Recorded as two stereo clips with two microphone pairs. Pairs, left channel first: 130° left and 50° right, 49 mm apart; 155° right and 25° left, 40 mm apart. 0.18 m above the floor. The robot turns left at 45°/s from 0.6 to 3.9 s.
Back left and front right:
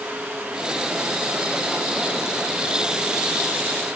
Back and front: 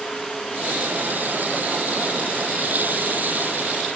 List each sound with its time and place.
Only background noise.